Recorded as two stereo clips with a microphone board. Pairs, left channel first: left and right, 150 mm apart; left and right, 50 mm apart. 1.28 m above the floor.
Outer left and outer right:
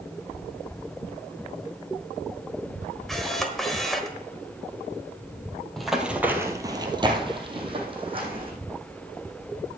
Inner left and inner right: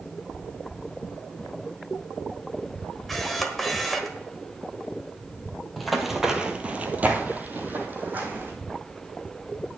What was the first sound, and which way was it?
A camera shutter, centre (ahead or behind).